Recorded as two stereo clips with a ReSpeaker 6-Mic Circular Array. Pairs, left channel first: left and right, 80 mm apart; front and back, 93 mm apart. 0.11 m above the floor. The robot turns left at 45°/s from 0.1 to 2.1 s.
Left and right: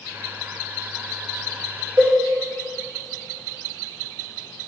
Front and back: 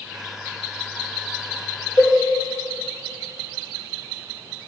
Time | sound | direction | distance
2.0 | a cowbell | 40° right | 4.5 m